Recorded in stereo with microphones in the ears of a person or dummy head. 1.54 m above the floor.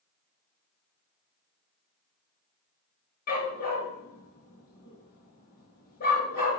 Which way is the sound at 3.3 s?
45° left (ahead or behind).